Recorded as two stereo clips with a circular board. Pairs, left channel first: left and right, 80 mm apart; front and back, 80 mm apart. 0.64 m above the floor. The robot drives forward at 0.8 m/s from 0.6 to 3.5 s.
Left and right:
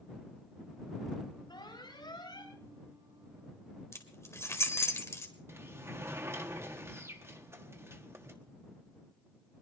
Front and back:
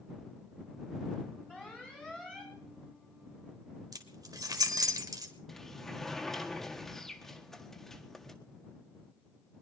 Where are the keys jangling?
145° left, 1.8 m.